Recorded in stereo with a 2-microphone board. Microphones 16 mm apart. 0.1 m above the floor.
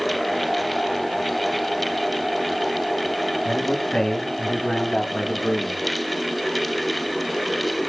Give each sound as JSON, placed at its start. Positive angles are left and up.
{"t": 3.5, "sound": "a man speaking", "side_deg": 55, "distance_m": 7.5}